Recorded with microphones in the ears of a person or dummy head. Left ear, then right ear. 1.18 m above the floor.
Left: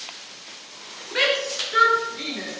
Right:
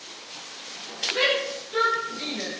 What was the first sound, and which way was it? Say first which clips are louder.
A shout: left 3 dB; 75° left (ahead or behind).